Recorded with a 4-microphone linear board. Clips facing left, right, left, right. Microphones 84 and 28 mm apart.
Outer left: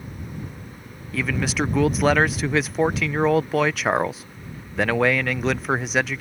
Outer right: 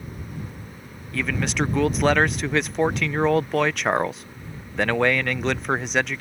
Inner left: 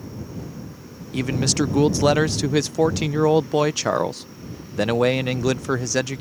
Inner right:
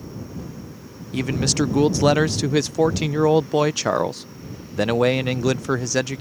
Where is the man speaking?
Centre (ahead or behind).